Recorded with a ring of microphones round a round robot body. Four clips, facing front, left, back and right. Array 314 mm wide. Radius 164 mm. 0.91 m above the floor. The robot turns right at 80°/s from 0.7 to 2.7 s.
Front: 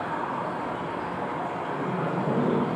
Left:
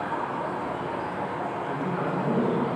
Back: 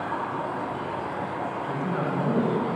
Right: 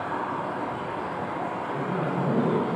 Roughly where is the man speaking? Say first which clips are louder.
Even, back 2 dB; behind left.